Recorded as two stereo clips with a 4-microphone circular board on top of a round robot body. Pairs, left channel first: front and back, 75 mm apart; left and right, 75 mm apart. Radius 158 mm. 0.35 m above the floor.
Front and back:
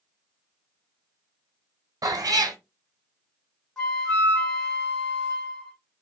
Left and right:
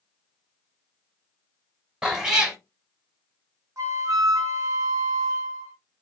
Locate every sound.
2.0 s a cat meowing: 170° right, 0.8 m
3.8 s a flute: 75° right, 1.0 m